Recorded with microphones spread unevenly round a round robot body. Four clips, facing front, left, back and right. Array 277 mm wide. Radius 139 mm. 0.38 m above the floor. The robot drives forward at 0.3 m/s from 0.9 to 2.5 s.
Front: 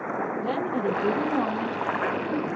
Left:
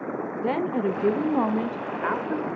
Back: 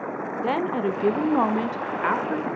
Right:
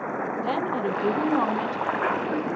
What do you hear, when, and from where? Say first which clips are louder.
0.4 s a woman speaking: left 3 dB, back 5 dB; 125° left, 1.0 m; by 2.5 s 150° left, 1.3 m